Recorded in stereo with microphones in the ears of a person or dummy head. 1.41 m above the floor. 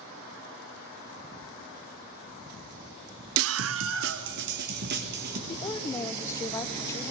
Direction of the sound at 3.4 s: 70° right (ahead or behind).